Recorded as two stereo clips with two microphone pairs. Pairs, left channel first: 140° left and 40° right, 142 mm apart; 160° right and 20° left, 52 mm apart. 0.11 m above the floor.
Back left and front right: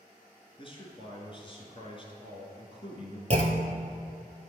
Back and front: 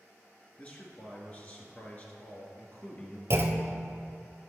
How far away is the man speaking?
About 1.5 m.